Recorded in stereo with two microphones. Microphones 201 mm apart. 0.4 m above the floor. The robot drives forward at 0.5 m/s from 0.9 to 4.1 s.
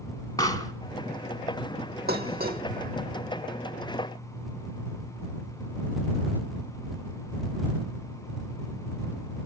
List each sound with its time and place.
0.4 s a pop: 20° left (ahead or behind), 1.3 m
2.1 s dishes clattering: 50° right (ahead or behind), 1.0 m; by 2.6 s 45° right (ahead or behind), 1.1 m